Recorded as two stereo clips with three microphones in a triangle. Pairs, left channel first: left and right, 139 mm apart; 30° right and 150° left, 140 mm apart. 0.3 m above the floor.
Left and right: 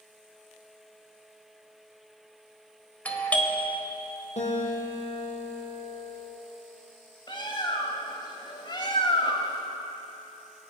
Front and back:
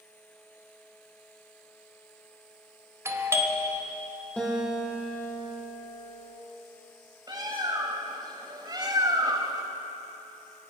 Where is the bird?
115° left, 1.3 m.